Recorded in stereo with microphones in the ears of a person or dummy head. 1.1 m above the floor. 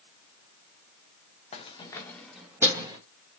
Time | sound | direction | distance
1.5 | keys jangling | 35° left (ahead or behind) | 0.6 m